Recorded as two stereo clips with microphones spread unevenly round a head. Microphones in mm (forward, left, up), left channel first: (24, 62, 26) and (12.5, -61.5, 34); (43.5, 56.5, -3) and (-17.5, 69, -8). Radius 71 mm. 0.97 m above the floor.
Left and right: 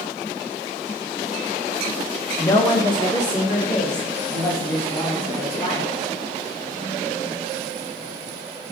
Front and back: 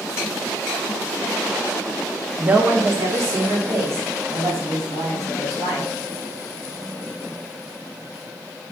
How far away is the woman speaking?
About 0.6 m.